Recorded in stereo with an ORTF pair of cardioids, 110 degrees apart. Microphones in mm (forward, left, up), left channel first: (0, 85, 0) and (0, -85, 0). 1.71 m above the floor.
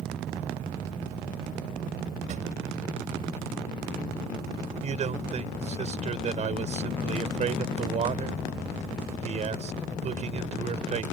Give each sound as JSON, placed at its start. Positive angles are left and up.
{"t": 2.3, "sound": "a drawer", "azimuth_deg": -50}
{"t": 4.8, "sound": "a man speaking", "azimuth_deg": -45}